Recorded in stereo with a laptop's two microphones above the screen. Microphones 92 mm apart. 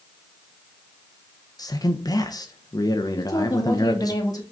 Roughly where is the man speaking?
Left.